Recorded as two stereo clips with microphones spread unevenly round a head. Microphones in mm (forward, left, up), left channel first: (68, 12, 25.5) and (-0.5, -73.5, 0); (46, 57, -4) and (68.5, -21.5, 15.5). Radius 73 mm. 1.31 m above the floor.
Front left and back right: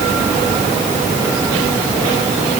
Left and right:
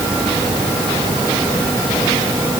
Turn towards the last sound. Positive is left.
No sound to turn to.